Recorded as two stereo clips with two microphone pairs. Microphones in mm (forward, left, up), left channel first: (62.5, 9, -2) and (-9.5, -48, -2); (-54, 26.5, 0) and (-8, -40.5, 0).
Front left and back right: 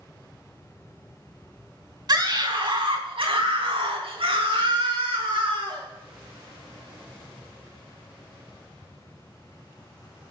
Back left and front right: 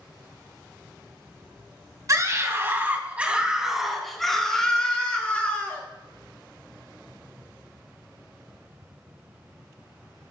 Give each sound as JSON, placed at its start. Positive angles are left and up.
{"t": 2.1, "sound": "a scream", "azimuth_deg": -105, "distance_m": 3.0}